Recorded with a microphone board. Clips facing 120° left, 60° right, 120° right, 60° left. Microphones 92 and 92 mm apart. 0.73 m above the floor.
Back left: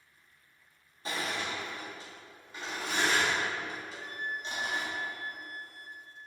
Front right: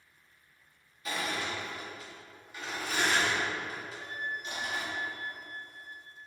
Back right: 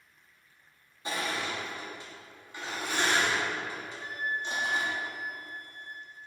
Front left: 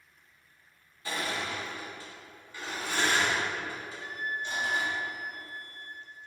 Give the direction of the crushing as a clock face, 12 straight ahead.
6 o'clock.